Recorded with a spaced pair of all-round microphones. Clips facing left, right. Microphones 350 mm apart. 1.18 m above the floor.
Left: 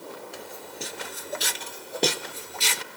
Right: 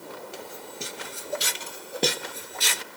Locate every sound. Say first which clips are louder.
0.3 s footsteps: even; 10° right (ahead or behind), 1.3 m; by 2.8 s 5° left (ahead or behind), 1.2 m